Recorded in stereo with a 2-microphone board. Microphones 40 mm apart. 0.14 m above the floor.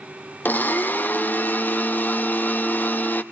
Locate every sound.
0.5 s a blender: 50° left (ahead or behind), 1.1 m